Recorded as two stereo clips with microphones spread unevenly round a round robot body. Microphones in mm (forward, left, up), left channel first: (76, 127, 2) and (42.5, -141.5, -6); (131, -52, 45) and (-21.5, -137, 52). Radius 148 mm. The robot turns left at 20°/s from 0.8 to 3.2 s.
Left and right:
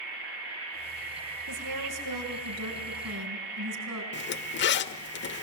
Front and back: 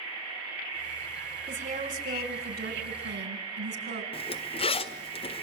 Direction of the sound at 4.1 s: 65° left.